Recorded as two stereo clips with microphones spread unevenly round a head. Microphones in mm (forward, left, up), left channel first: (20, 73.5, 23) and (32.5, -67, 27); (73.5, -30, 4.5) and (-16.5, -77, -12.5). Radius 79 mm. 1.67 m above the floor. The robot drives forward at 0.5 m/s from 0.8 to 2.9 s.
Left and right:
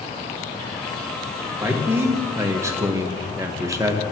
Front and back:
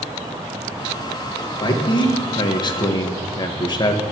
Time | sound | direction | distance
1.6 | a man speaking | 10° right | 2 m